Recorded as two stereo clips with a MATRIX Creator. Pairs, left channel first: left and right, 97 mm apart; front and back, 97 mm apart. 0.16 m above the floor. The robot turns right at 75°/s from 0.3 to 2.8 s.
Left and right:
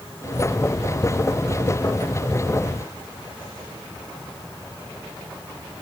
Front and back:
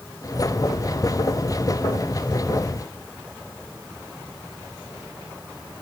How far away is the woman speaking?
I don't hear a woman speaking.